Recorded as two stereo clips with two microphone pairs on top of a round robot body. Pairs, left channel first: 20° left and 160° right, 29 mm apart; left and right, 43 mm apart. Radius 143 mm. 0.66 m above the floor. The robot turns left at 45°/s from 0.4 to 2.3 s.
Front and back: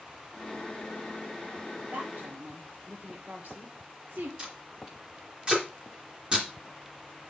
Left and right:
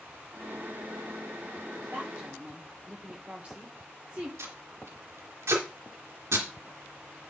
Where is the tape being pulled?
105° right, 3 m.